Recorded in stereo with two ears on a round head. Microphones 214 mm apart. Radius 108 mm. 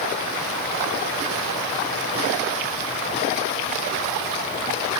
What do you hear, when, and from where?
Only background noise.